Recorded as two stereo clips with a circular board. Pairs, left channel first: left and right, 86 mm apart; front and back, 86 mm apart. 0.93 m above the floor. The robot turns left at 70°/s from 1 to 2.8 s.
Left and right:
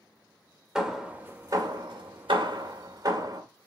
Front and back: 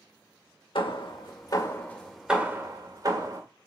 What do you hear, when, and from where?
0.8 s hammering: 10° right, 2 m; by 3.4 s 135° right, 2 m